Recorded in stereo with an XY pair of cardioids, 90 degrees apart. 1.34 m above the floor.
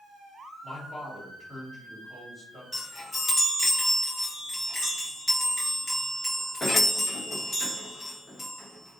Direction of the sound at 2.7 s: 35° left.